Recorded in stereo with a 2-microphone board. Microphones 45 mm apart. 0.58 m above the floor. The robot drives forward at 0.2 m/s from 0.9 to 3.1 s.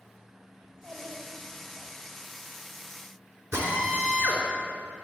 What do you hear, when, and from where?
0.6 s a child speaking: 55° right (ahead or behind), 2.5 m; by 1.9 s 60° right (ahead or behind), 2.5 m
3.5 s a drill: 75° right (ahead or behind), 3.5 m